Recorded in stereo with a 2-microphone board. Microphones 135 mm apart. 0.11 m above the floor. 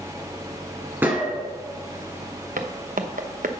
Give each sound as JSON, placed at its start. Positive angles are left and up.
{"t": 1.0, "sound": "a gunshot", "side_deg": -15, "distance_m": 1.5}
{"t": 2.6, "sound": "footsteps", "side_deg": -85, "distance_m": 1.0}